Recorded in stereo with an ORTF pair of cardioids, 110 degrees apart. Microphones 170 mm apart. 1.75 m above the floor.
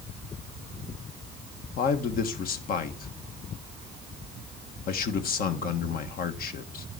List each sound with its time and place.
1.8 s a man speaking: 65° left, 1.7 m